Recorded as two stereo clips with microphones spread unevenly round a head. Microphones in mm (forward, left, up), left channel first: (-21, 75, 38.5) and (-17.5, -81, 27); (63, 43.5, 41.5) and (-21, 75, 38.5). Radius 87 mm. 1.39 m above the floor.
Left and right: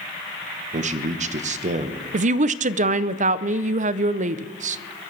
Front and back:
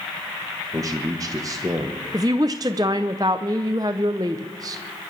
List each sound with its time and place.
0.7 s a man speaking: 135° right, 1.1 m
2.1 s a woman speaking: 135° right, 0.5 m